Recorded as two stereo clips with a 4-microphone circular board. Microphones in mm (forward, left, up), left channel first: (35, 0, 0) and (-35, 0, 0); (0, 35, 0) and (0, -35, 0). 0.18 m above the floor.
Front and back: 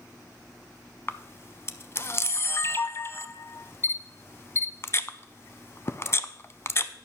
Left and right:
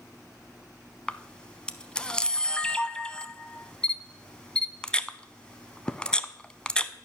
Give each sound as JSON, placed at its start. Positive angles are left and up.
{"t": 1.1, "sound": "a camera shutter", "azimuth_deg": 20, "distance_m": 0.5}